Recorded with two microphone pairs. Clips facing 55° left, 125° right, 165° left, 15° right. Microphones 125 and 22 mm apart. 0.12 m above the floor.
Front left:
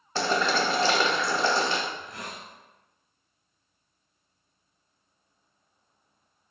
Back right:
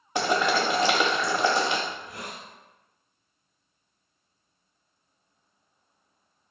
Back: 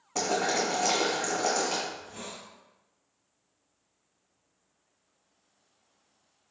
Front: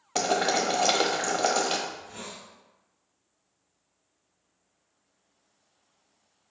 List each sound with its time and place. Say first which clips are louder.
0.1 s boiling: back right 1 dB, front 3 dB; 55° right, 1.0 m
1.9 s a hiss: even, front 1 dB; 60° right, 1.5 m